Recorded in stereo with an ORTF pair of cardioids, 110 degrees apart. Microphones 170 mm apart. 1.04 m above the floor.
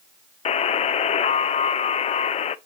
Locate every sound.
0.5 s a buzzer: 40° left, 0.5 m